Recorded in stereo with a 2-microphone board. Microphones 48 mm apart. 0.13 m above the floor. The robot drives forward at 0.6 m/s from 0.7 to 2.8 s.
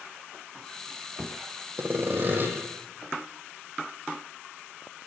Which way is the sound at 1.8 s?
45° right (ahead or behind).